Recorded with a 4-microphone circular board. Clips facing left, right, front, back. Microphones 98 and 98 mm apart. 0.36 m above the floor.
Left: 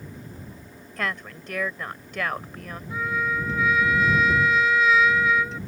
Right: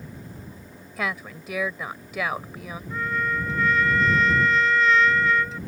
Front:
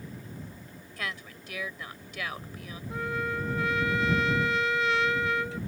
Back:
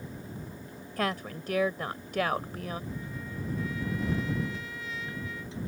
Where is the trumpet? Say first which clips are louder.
Even, front 8 dB; 5° left.